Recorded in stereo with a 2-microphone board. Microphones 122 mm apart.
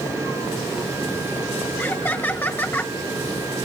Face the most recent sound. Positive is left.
turn(degrees=15)  # may be behind; listen again after turning